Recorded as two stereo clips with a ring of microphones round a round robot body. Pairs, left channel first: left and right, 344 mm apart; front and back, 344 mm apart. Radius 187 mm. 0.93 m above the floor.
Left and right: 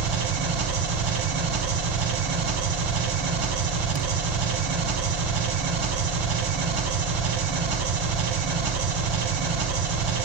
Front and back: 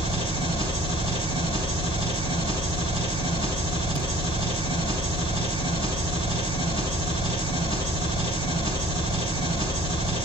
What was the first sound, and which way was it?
An engine running, 100° right.